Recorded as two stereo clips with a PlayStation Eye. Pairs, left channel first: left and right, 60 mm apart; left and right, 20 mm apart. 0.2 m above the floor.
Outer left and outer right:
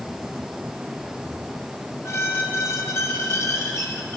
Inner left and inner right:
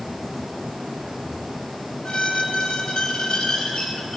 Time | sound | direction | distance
2.0 | a squeak | 50° left (ahead or behind) | 1.4 m